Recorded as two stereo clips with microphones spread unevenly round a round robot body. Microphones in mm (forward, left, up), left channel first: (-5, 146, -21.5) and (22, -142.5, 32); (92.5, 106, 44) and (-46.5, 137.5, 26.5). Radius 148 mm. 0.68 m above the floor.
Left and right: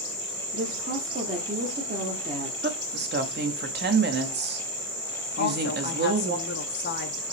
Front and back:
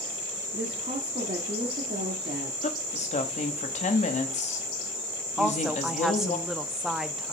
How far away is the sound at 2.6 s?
About 0.9 m.